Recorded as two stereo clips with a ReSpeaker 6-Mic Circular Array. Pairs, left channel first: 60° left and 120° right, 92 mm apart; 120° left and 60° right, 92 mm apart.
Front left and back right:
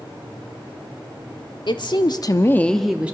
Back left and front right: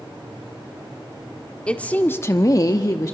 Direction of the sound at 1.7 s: 45° left.